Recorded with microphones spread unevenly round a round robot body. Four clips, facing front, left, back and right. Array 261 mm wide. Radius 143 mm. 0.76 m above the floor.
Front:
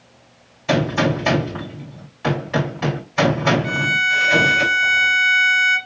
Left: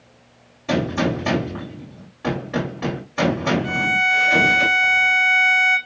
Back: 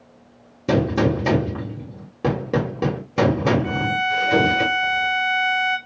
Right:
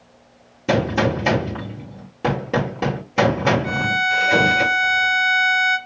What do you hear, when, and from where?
0.7 s a gunshot: 150° right, 1.3 m
3.6 s a violin: 90° left, 2.5 m